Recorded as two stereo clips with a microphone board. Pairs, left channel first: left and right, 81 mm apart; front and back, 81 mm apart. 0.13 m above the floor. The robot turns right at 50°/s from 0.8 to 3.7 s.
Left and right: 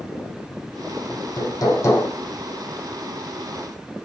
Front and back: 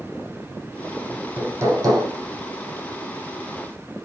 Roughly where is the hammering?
Left.